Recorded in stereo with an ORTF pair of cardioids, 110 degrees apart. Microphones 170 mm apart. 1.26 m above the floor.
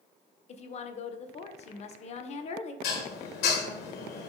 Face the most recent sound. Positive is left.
turn(degrees=70)